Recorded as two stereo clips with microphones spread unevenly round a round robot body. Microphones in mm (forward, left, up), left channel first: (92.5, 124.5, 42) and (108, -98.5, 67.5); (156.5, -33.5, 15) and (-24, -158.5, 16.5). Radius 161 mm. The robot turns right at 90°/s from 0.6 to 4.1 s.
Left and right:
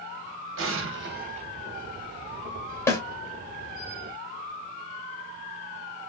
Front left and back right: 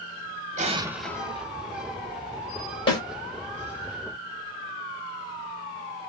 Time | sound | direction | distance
0.6 | an explosion | 95° right | 0.8 m
2.9 | a snare drum | 55° left | 1.4 m